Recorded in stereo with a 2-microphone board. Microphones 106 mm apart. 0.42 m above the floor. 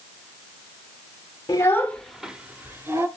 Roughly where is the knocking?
I don't hear knocking.